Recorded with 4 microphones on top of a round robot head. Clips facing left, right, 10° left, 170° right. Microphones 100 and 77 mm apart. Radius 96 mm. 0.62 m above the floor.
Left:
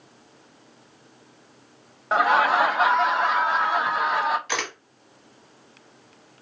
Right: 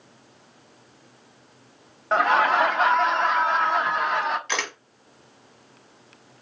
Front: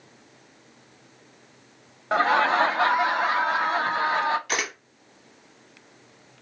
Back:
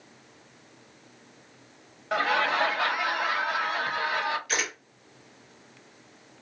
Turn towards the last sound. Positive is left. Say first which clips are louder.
# even, front 2 dB
turn(degrees=15)